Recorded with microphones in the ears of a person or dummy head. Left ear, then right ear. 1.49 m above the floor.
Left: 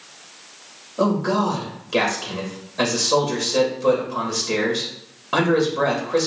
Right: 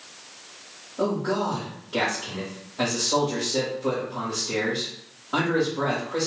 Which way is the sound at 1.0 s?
85° left.